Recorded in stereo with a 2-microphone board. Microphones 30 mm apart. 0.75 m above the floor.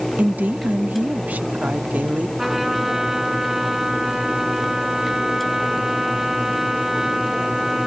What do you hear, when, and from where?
0.2 s a woman speaking: 70° right (ahead or behind), 1.1 m
2.4 s a trumpet: 10° right (ahead or behind), 1.9 m